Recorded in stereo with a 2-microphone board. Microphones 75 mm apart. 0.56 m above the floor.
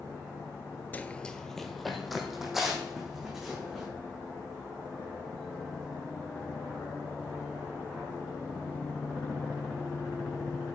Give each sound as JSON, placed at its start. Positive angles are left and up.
{"t": 0.9, "sound": "running footsteps", "side_deg": 20, "distance_m": 0.6}